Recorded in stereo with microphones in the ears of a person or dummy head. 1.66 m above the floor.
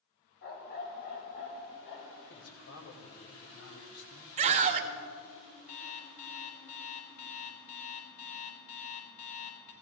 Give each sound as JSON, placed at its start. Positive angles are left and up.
{"t": 0.4, "sound": "a dog barking", "side_deg": 55, "distance_m": 4.0}
{"t": 2.3, "sound": "a man speaking", "side_deg": 70, "distance_m": 2.0}
{"t": 4.4, "sound": "a scream", "side_deg": -40, "distance_m": 0.6}
{"t": 5.7, "sound": "an alarm clock", "side_deg": 45, "distance_m": 4.0}